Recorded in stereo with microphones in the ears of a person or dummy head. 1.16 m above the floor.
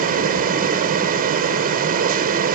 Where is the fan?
45° right (ahead or behind).